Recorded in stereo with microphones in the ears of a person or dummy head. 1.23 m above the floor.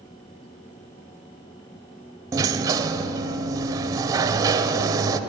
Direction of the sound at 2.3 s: 15° right (ahead or behind).